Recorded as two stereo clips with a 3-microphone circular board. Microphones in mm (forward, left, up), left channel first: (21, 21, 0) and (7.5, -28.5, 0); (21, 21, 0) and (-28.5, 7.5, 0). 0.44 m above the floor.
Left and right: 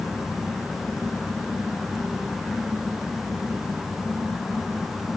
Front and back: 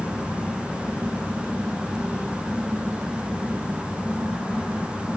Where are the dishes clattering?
No dishes clattering in this recording.